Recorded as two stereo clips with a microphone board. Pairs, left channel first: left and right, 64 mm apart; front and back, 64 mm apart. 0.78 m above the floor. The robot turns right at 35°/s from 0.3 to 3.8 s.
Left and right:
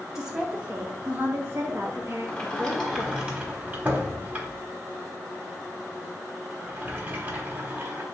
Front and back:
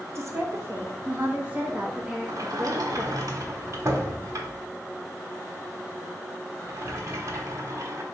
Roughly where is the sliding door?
Behind.